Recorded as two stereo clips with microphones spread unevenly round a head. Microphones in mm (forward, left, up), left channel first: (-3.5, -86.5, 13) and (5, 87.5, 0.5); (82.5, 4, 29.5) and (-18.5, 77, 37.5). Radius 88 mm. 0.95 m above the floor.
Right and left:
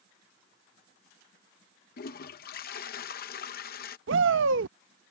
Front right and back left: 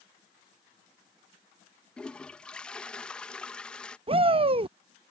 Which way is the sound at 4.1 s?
100° left.